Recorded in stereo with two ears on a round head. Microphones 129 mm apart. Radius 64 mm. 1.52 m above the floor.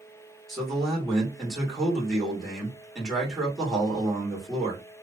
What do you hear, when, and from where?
0.5 s a man speaking: centre (ahead or behind), 1.6 m